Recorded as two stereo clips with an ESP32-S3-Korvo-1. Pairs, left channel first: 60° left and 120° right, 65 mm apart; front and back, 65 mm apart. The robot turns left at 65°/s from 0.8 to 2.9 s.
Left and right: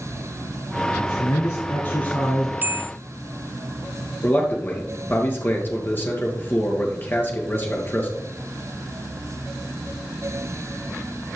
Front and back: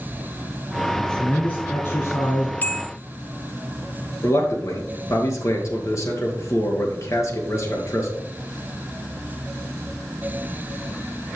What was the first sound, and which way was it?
A man speaking, 80° left.